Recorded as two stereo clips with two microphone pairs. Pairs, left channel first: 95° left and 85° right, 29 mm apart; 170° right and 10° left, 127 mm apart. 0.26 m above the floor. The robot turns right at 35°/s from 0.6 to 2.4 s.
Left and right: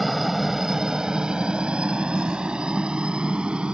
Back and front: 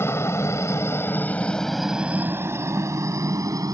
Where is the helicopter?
170° right; by 3.8 s 45° right.